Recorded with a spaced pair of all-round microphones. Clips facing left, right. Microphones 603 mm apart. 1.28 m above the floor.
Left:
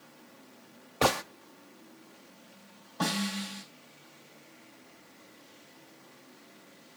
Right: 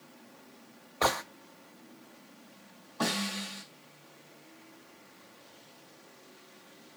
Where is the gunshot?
55° left (ahead or behind), 0.6 m.